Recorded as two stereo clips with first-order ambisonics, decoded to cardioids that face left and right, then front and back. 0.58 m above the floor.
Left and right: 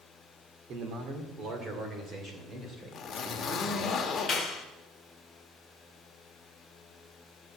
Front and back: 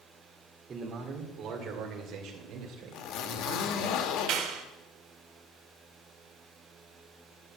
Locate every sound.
0.7 s a man speaking: 125° right, 1.9 m; by 3.9 s 165° right, 3.5 m
2.9 s a zipper: 25° left, 1.2 m
4.3 s a clap: 160° left, 1.6 m